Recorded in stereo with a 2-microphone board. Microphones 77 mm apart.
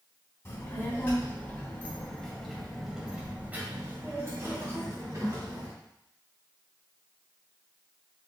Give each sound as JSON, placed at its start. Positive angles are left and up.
{"t": 0.5, "sound": "a child speaking", "side_deg": 30, "distance_m": 1.7}